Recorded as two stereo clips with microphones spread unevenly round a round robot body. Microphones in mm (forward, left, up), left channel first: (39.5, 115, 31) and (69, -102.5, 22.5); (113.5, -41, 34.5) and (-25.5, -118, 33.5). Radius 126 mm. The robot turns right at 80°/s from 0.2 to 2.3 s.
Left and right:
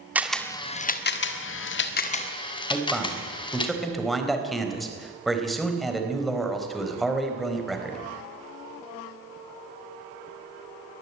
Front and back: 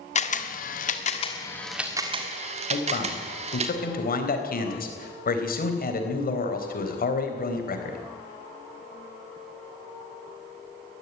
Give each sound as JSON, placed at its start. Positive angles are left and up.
{"t": 0.1, "sound": "a camera shutter", "azimuth_deg": 0, "distance_m": 1.7}
{"t": 2.7, "sound": "a man speaking", "azimuth_deg": 10, "distance_m": 4.0}